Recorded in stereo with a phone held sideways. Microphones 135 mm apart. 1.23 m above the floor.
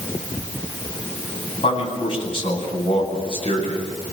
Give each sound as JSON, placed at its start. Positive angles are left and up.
{"t": 1.6, "sound": "a man speaking", "side_deg": 45, "distance_m": 9.5}